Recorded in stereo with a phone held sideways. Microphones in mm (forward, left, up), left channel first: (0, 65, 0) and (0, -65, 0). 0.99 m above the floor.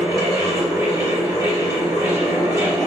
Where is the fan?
25° right (ahead or behind), 1.1 m.